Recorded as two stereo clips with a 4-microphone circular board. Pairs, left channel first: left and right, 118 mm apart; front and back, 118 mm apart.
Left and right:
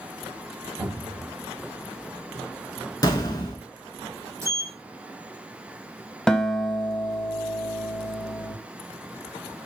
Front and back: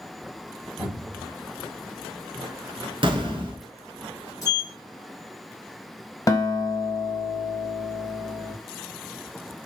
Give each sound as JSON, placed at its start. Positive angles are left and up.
{"t": 0.8, "sound": "a cupboard door", "azimuth_deg": 5, "distance_m": 1.7}
{"t": 3.0, "sound": "an explosion", "azimuth_deg": 140, "distance_m": 0.7}
{"t": 4.4, "sound": "a sliding door", "azimuth_deg": -40, "distance_m": 0.8}
{"t": 6.3, "sound": "a guitar", "azimuth_deg": 10, "distance_m": 0.5}